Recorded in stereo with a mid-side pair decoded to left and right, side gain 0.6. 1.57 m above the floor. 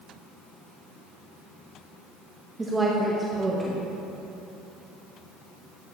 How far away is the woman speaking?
About 1.8 m.